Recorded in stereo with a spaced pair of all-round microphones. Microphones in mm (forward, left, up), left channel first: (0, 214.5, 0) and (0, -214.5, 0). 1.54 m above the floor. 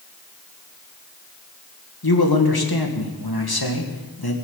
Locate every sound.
2.0 s a man speaking: 55° left (ahead or behind), 1.8 m